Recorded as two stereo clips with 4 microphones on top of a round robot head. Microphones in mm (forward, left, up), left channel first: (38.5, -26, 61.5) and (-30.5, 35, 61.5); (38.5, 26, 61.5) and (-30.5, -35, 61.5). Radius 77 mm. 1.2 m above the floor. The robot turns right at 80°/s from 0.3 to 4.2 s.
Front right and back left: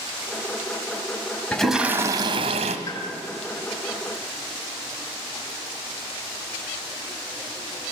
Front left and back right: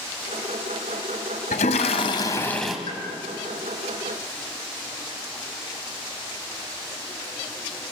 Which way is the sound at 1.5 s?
35° left.